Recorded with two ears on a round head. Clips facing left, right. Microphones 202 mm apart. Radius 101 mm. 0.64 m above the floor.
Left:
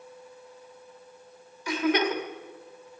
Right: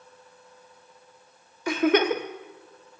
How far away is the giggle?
About 1.0 m.